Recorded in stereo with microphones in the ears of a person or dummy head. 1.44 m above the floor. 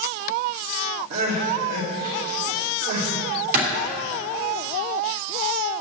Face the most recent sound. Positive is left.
turn(degrees=-50)  # may be behind; listen again after turning